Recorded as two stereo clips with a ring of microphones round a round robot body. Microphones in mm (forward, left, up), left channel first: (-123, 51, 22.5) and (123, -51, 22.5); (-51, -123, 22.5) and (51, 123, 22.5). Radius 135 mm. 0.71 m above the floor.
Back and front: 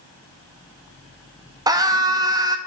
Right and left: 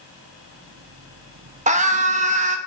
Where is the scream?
40° left, 0.9 m.